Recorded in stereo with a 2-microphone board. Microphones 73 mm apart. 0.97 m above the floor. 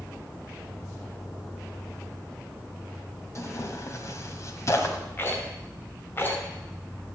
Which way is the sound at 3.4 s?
45° left (ahead or behind).